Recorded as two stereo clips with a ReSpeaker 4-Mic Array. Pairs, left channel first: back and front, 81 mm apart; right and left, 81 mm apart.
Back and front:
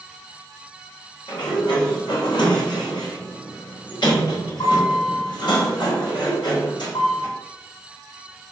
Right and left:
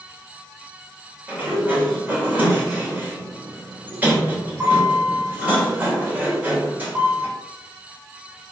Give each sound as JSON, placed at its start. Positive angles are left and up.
{"t": 1.3, "sound": "a sliding door", "azimuth_deg": 155, "distance_m": 3.5}